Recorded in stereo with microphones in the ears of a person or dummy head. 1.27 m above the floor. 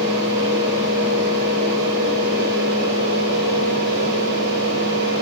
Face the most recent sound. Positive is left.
turn(degrees=-65)  # may be behind; listen again after turning